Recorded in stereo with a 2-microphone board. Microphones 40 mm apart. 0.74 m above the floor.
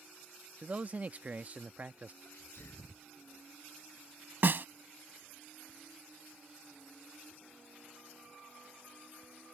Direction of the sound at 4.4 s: 55° right (ahead or behind).